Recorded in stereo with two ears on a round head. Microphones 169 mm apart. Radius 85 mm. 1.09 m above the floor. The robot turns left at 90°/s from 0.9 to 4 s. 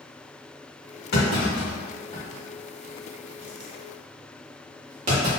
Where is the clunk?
60° left (ahead or behind), 1.5 m; by 5.3 s 40° right (ahead or behind), 1.5 m.